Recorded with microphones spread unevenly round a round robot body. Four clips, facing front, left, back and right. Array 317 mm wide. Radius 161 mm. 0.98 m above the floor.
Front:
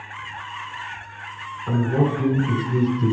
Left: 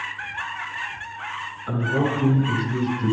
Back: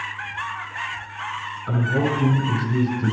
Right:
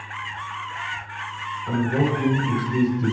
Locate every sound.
1.7 s a man speaking: 15° right, 5 m